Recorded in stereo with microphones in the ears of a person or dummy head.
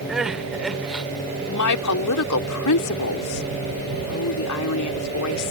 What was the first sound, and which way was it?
Crying, 5° right (ahead or behind).